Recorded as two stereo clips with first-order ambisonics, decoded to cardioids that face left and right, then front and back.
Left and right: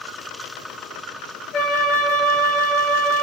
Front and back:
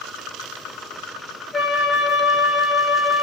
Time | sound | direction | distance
1.5 | a flute | 100° left | 1.3 m